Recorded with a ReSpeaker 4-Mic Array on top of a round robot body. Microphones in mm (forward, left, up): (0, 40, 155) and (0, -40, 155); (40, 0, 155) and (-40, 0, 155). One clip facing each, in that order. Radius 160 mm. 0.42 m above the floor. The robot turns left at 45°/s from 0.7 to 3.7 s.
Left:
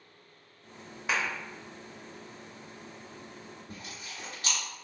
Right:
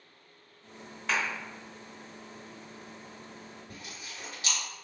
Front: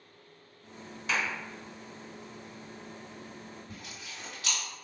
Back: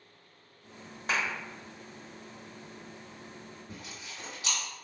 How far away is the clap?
About 1.4 m.